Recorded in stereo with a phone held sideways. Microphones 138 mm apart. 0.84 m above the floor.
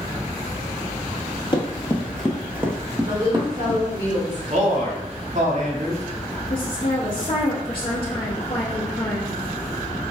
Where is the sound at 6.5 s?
40° left (ahead or behind), 0.8 m.